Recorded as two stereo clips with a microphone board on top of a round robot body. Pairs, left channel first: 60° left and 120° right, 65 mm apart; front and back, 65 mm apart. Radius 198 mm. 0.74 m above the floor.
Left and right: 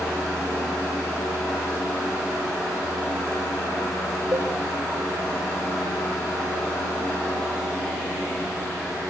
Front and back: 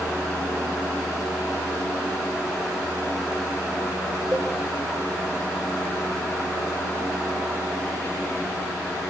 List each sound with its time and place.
4.3 s a cowbell: 130° right, 0.5 m